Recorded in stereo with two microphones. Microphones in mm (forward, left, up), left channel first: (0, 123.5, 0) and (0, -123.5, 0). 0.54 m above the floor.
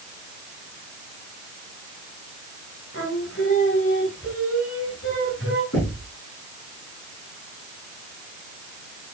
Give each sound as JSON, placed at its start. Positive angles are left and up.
{"t": 2.9, "sound": "singing", "side_deg": 60, "distance_m": 4.0}
{"t": 5.7, "sound": "knocking", "side_deg": 75, "distance_m": 8.0}